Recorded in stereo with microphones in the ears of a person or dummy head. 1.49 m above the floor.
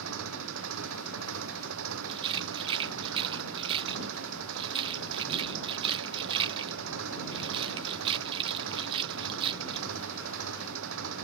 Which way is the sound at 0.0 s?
75° right (ahead or behind).